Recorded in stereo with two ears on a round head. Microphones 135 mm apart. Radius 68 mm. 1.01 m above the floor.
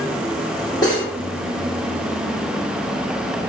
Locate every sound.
0.8 s cutlery clinking: 25° left (ahead or behind), 1.1 m